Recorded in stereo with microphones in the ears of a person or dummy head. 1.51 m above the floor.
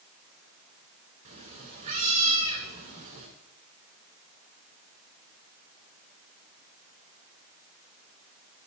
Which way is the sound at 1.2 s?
35° right (ahead or behind).